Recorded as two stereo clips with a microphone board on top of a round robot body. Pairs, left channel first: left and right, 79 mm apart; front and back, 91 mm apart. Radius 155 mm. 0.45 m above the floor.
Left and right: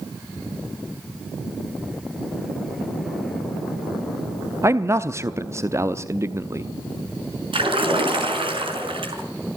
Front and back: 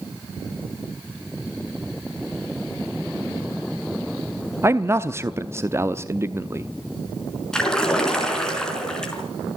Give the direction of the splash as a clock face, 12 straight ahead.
3 o'clock.